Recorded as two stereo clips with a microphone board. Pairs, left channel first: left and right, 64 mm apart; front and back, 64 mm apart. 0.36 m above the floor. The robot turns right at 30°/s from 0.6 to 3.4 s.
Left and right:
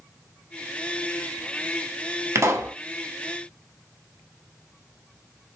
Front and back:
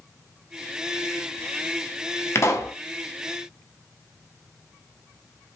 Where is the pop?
50° right, 0.6 m; by 2.8 s 40° right, 0.6 m.